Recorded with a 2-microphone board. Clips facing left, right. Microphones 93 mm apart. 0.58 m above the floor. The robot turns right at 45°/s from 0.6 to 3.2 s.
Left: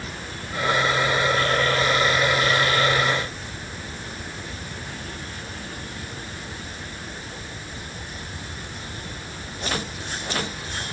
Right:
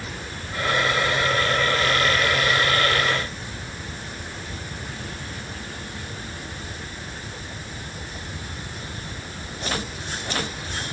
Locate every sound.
Only background noise.